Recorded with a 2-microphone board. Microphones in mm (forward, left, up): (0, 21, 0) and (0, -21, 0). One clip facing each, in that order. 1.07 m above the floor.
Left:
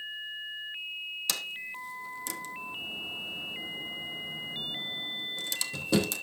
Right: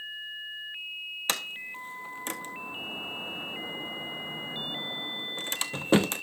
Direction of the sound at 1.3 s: 40° right (ahead or behind).